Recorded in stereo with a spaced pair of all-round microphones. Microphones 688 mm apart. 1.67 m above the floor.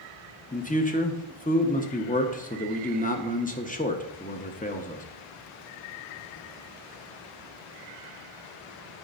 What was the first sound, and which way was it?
A man speaking, 10° left (ahead or behind).